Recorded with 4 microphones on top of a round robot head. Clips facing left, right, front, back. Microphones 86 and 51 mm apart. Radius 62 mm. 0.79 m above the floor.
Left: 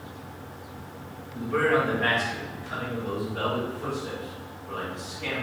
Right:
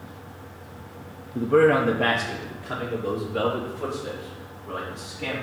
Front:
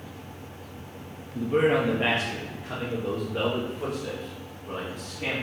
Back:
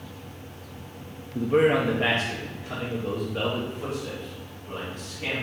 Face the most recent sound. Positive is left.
turn(degrees=-55)